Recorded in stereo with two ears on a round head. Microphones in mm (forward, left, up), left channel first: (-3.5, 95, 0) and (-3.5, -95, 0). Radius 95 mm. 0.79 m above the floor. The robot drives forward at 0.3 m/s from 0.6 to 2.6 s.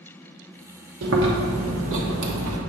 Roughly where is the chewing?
Right.